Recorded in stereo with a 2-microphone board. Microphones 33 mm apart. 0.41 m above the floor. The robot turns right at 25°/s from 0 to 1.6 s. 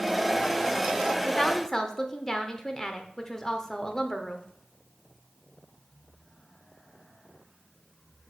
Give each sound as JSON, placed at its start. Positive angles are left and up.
{"t": 1.2, "sound": "a woman speaking", "side_deg": 20, "distance_m": 0.8}